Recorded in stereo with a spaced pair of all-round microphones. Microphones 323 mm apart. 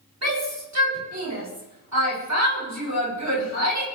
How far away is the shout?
About 8 m.